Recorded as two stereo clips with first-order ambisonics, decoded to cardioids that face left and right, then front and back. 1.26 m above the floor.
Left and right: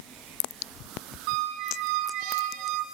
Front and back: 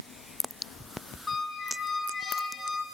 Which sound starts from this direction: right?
A squeak, at 1.3 s.